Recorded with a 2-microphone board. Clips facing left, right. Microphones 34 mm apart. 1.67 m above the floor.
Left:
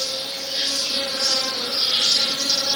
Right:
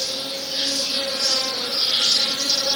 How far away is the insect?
About 1.0 m.